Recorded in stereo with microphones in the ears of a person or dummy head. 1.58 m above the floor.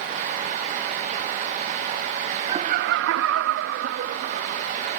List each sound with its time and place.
2.5 s laughter: 25° right (ahead or behind); by 4.7 s 50° right (ahead or behind)